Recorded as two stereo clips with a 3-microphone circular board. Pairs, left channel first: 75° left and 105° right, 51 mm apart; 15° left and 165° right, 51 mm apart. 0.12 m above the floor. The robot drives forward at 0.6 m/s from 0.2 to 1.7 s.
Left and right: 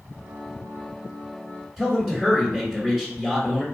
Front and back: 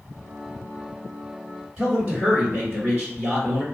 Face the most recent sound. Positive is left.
turn(degrees=170)